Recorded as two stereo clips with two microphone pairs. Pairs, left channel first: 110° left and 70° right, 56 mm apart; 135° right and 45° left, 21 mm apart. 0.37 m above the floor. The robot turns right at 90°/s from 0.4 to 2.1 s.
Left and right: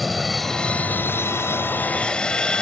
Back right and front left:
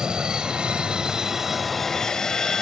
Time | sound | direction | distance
0.0 | an aircraft | 20° left | ?